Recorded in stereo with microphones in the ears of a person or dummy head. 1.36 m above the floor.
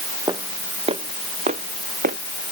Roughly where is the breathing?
I don't hear breathing.